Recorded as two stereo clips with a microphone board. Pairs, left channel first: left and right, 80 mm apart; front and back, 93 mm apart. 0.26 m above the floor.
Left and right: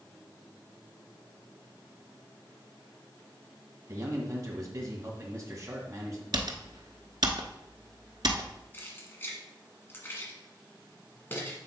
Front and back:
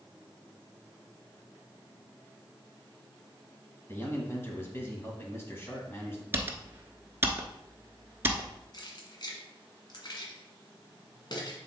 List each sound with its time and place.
3.9 s a man speaking: 55° right, 1.9 m
6.3 s typing on a keyboard: 115° right, 0.9 m
8.7 s keys jangling: 30° left, 1.7 m